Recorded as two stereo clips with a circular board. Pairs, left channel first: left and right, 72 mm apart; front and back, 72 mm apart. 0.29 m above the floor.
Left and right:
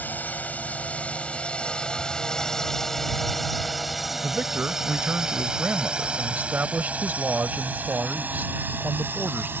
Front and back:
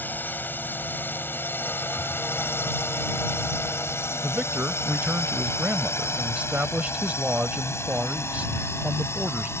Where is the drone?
40° left; by 9.6 s 40° right.